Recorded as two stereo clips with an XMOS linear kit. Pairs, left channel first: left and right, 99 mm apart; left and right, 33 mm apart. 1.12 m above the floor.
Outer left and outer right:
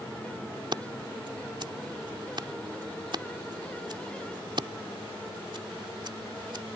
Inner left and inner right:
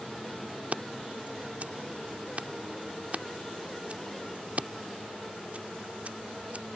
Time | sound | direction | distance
0.7 | scissors | 50° right (ahead or behind) | ?